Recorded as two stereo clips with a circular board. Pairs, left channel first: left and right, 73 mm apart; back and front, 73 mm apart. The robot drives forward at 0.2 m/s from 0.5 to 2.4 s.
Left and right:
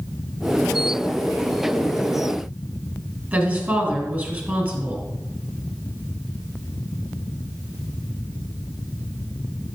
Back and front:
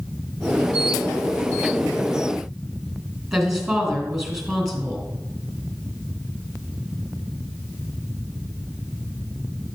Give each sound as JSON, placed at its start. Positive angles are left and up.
{"t": 3.3, "sound": "a woman speaking", "azimuth_deg": -80, "distance_m": 1.6}